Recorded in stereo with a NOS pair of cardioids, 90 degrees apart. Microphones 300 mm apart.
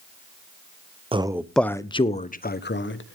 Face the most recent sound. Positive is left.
turn(degrees=45)